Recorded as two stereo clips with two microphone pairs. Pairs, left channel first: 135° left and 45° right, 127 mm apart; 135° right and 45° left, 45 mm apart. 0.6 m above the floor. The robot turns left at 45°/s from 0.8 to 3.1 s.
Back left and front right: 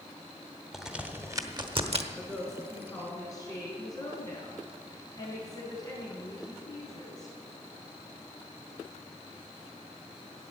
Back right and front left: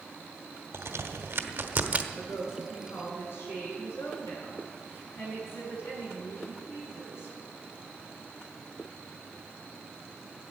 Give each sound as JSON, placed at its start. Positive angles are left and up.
{"t": 0.7, "sound": "a crack", "azimuth_deg": 40, "distance_m": 1.1}
{"t": 2.1, "sound": "a woman speaking", "azimuth_deg": -120, "distance_m": 6.5}